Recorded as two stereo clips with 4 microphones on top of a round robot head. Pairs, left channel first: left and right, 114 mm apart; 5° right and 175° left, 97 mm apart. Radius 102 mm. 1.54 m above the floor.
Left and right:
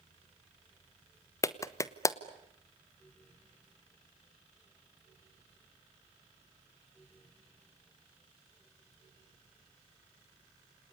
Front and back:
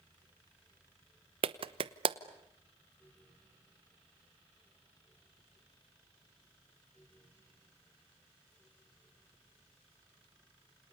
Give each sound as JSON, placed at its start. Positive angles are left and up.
{"t": 1.4, "sound": "a clap", "azimuth_deg": 150, "distance_m": 1.0}